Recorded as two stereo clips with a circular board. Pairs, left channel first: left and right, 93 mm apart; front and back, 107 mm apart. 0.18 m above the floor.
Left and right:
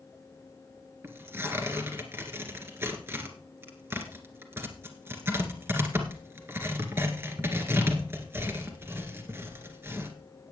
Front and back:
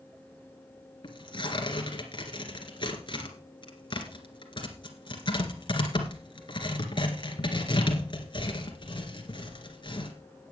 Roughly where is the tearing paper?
Ahead right.